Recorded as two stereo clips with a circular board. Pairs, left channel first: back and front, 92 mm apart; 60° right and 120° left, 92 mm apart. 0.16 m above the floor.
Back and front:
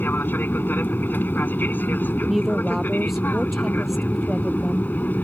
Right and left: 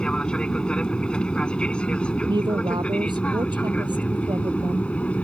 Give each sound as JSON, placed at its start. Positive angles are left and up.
{"t": 0.0, "sound": "an aircraft", "azimuth_deg": -135}
{"t": 2.3, "sound": "a woman speaking", "azimuth_deg": 90}